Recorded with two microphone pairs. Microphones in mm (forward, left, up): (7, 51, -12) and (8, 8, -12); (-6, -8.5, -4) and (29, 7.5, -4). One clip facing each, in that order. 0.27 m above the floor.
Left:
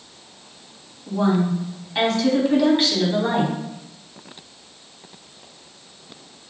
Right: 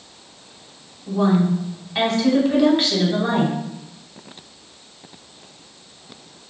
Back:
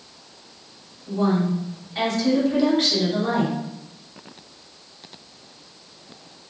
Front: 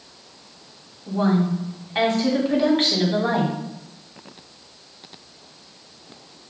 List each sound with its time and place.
1.1 s a woman speaking: straight ahead, 1.6 m